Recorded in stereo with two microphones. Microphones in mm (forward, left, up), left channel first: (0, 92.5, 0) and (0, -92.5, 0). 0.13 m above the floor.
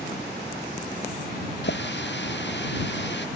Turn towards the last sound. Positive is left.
turn(degrees=75)  # may be behind; listen again after turning